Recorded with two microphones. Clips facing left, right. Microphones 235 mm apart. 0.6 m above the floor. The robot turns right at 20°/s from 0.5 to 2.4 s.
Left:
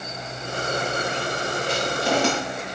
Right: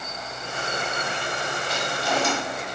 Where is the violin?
I don't hear a violin.